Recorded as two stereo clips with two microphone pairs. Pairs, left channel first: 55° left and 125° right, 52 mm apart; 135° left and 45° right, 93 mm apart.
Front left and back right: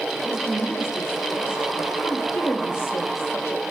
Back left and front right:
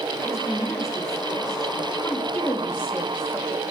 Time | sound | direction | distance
0.1 | a woman speaking | 80° left | 3.5 m
2.0 | a woman speaking | 70° left | 2.5 m